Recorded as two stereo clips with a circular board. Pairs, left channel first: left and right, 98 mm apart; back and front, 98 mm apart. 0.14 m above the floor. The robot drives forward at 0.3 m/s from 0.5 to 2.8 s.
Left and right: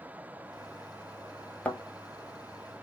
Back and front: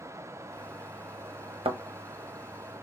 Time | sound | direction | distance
1.6 | a thud | 10° left | 0.7 m